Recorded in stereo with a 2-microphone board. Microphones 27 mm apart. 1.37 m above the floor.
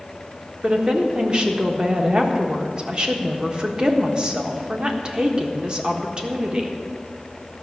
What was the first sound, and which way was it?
A woman speaking, 35° right (ahead or behind).